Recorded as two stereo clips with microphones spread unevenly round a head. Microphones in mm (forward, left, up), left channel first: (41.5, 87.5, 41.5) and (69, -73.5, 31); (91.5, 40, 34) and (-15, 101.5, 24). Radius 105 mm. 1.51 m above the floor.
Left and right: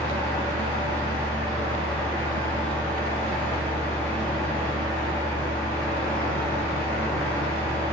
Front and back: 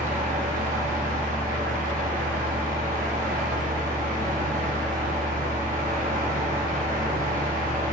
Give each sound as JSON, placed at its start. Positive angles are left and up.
{"t": 0.0, "sound": "a fan", "azimuth_deg": 180, "distance_m": 0.9}